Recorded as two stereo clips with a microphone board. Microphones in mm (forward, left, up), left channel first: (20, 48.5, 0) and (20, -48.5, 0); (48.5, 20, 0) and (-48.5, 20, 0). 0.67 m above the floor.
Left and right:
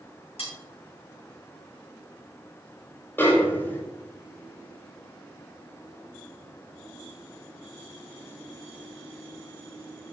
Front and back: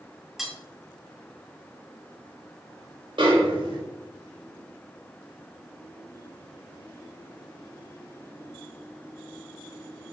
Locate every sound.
0.4 s cutlery clinking: 90° left, 2.5 m
3.2 s a snare drum: 155° left, 3 m